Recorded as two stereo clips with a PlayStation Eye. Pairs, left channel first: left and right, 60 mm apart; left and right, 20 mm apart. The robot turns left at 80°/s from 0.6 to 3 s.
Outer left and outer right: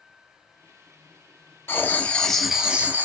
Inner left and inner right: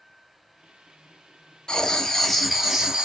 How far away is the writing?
About 0.6 m.